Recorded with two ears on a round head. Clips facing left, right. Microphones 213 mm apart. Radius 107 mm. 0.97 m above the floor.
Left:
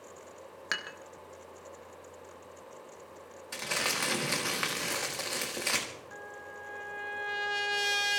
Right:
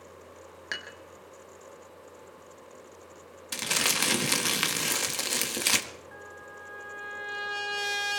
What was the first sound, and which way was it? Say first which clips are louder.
Dishes clattering: even; 10° left (ahead or behind).